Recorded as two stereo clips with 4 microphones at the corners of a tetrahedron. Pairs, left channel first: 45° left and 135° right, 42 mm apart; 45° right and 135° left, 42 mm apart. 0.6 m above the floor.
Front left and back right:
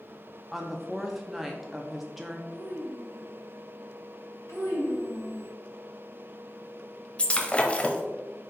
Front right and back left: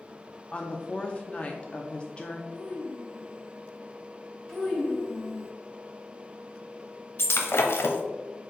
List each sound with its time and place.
0.5 s a woman speaking: 60° right, 0.6 m
2.5 s a child speaking: 15° left, 2.5 m
4.5 s a child speaking: 40° left, 2.5 m
7.2 s breaking glass: 20° right, 0.8 m